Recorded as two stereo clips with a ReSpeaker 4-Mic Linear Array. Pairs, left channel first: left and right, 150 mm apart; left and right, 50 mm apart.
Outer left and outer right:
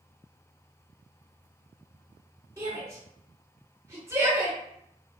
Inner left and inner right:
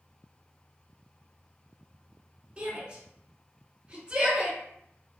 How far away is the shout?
About 1.7 m.